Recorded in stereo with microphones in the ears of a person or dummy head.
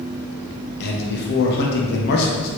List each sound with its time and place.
0.8 s a man speaking: 65° left (ahead or behind), 1.0 m